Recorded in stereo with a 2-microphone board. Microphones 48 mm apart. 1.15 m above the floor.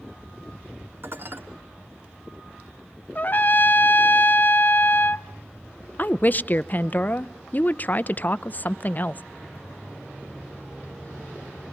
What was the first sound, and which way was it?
Dishes clattering, 45° right (ahead or behind).